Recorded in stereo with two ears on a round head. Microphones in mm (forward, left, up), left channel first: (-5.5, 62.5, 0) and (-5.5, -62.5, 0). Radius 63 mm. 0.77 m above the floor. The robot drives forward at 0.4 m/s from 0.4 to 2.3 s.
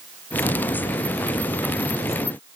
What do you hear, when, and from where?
Only background noise.